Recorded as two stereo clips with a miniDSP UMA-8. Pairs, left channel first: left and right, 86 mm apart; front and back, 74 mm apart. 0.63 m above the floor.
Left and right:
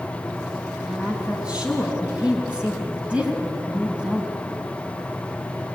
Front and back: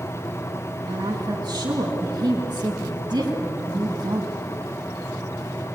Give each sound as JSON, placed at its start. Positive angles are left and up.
{"t": 0.9, "sound": "a woman speaking", "azimuth_deg": -170, "distance_m": 6.5}